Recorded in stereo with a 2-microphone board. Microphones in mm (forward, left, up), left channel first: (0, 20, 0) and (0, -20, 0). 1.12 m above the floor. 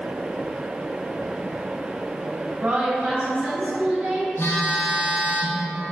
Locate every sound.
2.6 s a woman speaking: 55° right (ahead or behind), 1.9 m
4.4 s a phone buzzing: 90° left, 0.6 m